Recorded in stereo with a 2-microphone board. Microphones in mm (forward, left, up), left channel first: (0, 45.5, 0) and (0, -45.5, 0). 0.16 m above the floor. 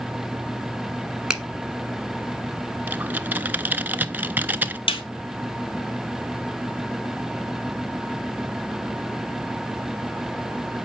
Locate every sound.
1.3 s a finger snap: 10° right (ahead or behind), 1.2 m
2.9 s typing on a keyboard: 20° right (ahead or behind), 0.5 m
4.9 s a snare drum: 75° left (ahead or behind), 1.9 m